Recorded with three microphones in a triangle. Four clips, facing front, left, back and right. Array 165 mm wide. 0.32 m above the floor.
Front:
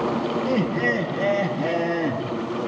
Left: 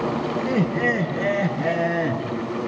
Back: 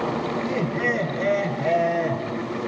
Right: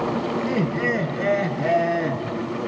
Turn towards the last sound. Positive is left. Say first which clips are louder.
# left 4 dB, front 3 dB
turn(degrees=50)